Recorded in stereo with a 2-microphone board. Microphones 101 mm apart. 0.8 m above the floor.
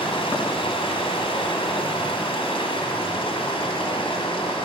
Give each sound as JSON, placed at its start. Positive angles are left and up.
{"t": 0.0, "sound": "running water", "side_deg": 70, "distance_m": 1.8}